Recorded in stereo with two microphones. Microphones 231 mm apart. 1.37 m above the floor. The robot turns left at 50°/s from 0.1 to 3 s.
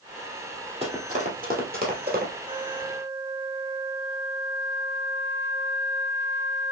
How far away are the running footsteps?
About 2.5 m.